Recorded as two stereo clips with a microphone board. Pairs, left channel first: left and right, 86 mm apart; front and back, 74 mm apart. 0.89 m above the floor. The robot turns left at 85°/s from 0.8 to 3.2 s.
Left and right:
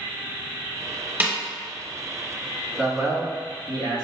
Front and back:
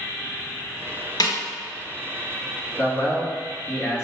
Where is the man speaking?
20° right, 1.6 m; by 4.0 s 55° right, 1.6 m.